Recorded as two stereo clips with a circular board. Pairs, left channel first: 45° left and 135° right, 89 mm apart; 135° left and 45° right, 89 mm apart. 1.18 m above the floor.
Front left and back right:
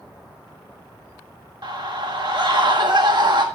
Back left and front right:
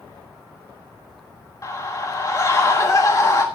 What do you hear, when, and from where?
1.6 s a scream: 170° right, 1.5 m